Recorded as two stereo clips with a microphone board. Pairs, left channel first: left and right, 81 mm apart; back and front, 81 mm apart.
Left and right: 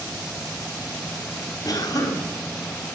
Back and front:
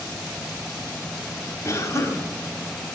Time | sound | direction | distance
1.6 | a cough | 125° left | 3 m